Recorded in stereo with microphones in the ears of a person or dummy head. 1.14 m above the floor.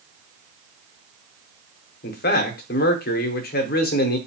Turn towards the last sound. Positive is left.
turn(degrees=50)  # may be behind; listen again after turning